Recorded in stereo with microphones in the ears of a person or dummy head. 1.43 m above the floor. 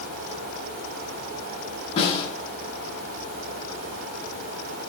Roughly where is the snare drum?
Left.